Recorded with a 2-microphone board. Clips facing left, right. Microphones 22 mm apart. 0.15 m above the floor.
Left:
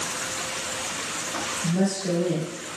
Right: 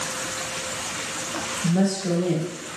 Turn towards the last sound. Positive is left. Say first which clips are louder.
# right 3 dB
turn(degrees=-20)  # may be behind; listen again after turning